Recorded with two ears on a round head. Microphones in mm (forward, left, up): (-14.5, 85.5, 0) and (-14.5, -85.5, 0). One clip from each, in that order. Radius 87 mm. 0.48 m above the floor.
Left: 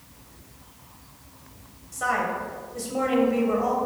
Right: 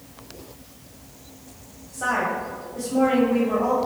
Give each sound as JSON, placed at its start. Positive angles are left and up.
{"t": 1.9, "sound": "a woman speaking", "side_deg": 45, "distance_m": 2.5}